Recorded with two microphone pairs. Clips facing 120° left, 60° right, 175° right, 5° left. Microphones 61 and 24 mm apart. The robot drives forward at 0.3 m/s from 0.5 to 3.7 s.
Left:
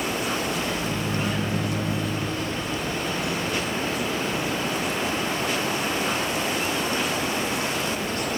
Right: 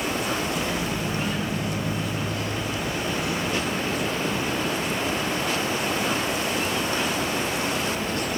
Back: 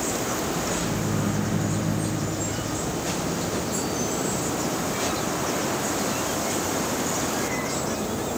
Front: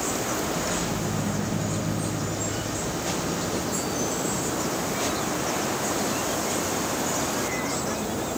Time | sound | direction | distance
0.8 | a microwave | 175° left | 1.8 m